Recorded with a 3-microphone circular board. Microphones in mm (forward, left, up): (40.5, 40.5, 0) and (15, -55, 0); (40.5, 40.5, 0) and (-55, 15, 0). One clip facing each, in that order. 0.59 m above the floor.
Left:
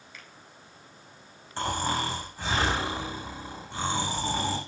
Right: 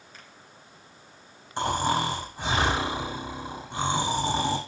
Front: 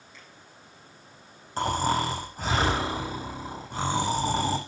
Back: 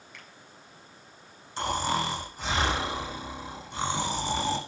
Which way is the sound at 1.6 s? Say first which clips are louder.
Right 4 dB, front 3 dB; 30° right.